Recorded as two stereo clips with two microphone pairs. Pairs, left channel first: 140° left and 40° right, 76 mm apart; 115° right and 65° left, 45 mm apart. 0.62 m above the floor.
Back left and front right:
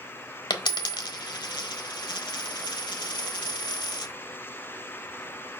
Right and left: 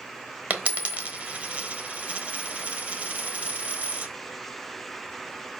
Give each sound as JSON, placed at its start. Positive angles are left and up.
{"t": 0.5, "sound": "a dropped coin", "azimuth_deg": 120, "distance_m": 1.0}